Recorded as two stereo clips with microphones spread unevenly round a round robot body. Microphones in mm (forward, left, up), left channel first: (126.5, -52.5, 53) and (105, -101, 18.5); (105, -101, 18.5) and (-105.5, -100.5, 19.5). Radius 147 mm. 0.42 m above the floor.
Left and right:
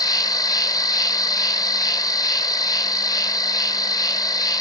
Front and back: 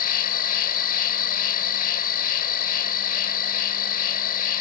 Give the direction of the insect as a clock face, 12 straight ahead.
10 o'clock.